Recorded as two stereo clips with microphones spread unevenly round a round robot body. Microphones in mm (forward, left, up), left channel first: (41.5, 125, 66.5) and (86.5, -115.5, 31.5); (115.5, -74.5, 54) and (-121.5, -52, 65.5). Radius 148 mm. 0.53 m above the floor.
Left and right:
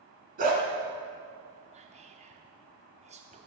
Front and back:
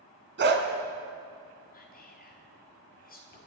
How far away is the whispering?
About 1.1 m.